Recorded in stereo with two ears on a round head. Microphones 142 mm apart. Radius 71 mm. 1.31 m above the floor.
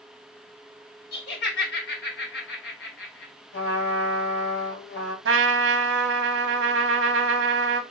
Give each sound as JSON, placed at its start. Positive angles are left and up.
{"t": 1.1, "sound": "laughter", "side_deg": 70, "distance_m": 1.3}
{"t": 3.5, "sound": "a trumpet", "side_deg": 65, "distance_m": 2.0}
{"t": 5.2, "sound": "a trumpet", "side_deg": -85, "distance_m": 0.6}